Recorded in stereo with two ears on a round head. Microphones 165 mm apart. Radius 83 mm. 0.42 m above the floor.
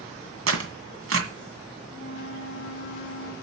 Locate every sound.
0.5 s tearing paper: 70° right (ahead or behind), 1.9 m
1.9 s a flute: 50° right (ahead or behind), 3 m